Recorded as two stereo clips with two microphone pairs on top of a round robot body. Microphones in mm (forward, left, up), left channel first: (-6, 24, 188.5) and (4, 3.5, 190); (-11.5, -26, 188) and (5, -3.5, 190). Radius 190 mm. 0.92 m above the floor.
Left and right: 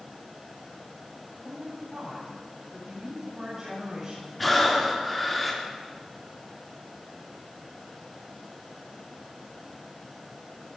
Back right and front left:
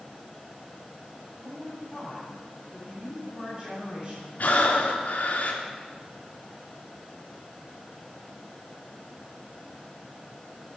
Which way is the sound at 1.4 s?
5° right.